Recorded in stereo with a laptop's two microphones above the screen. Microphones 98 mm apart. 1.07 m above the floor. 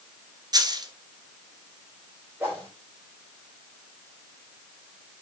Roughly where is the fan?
No fan in this recording.